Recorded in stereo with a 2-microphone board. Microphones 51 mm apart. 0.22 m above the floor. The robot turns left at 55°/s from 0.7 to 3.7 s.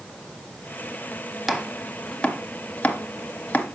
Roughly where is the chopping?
Centre.